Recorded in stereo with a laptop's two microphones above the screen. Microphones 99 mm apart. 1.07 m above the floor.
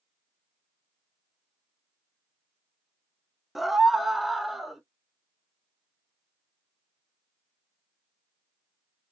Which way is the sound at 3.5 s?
Centre (ahead or behind).